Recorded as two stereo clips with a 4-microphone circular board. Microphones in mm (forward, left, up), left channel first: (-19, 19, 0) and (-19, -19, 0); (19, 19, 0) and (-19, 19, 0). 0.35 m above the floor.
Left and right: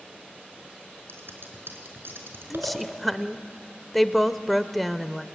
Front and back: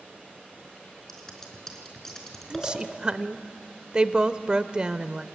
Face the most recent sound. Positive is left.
turn(degrees=180)